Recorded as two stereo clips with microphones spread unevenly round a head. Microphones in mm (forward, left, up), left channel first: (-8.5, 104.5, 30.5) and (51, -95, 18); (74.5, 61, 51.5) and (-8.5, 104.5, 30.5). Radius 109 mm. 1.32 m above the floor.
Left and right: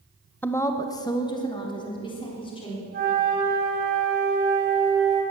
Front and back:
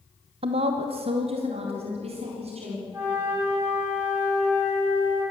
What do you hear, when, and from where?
0.4 s a woman speaking: 170° right, 0.9 m; by 2.8 s 175° left, 4.5 m
2.9 s a flute: 125° right, 6 m